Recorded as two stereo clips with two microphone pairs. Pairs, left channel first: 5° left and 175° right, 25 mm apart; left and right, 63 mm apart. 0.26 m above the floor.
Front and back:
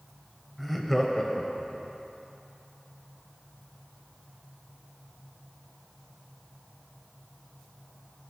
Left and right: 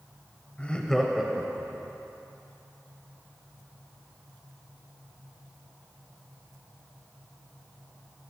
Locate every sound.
0.6 s laughter: 105° left, 1.2 m; by 1.9 s 40° right, 1.6 m